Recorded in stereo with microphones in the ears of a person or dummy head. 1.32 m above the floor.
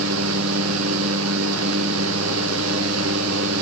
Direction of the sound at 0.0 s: 85° right.